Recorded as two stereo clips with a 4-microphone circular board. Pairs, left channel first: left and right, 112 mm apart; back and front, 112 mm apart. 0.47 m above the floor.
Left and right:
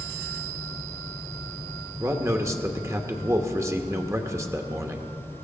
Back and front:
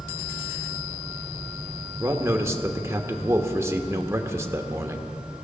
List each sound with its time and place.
2.0 s a man speaking: 45° right, 1.0 m